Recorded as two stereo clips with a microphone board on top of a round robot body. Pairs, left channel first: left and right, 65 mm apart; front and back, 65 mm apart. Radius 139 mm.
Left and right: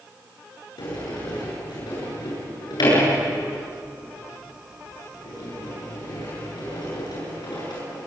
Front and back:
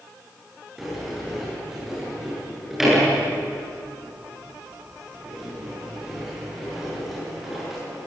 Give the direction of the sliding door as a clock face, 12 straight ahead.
9 o'clock.